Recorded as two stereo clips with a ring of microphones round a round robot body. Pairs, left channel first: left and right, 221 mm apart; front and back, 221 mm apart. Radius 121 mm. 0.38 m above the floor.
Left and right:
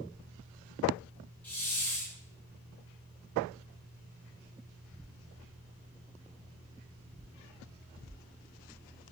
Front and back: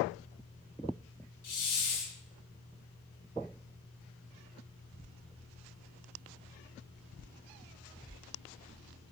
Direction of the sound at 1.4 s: 5° left.